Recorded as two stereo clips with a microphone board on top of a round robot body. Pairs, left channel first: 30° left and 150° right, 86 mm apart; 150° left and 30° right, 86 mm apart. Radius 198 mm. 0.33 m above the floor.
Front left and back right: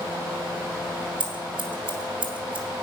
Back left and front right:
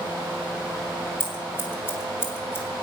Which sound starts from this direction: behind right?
Scissors, at 1.2 s.